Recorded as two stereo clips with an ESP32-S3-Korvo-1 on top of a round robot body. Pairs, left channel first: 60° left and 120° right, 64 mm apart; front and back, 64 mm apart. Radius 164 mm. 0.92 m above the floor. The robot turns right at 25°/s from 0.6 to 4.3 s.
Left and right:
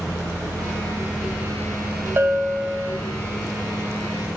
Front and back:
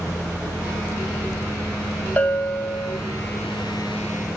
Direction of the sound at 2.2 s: 65° right.